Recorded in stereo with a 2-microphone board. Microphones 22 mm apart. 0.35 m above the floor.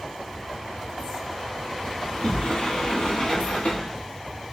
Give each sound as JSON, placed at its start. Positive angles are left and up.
{"t": 2.0, "sound": "a sliding door", "side_deg": 55, "distance_m": 1.5}